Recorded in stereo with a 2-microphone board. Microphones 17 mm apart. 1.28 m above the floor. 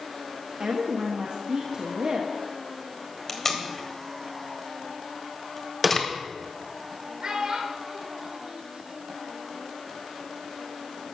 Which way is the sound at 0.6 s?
70° right (ahead or behind).